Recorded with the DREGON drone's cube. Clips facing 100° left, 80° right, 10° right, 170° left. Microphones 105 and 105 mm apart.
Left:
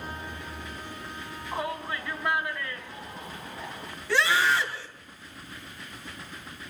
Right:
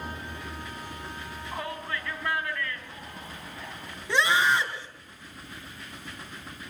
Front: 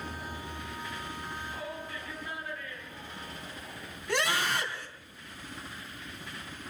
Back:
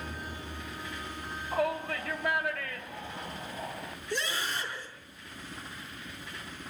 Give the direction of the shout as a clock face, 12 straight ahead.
6 o'clock.